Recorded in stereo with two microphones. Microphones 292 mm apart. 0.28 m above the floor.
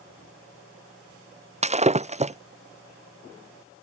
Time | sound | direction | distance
1.6 | breaking glass | 25° right (ahead or behind) | ?